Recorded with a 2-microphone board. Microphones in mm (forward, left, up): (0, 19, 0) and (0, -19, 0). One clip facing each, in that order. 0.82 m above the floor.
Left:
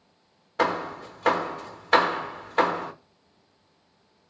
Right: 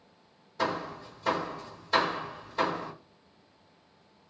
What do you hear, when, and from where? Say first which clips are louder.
0.6 s hammering: left 6 dB; 65° left (ahead or behind), 0.8 m